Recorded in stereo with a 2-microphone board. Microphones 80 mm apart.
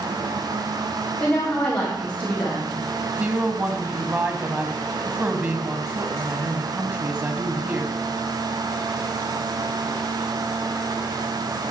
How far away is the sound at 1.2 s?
About 3 m.